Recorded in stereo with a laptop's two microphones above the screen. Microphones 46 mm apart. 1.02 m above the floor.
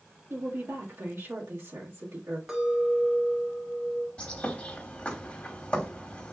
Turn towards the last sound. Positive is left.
turn(degrees=25)  # may be behind; listen again after turning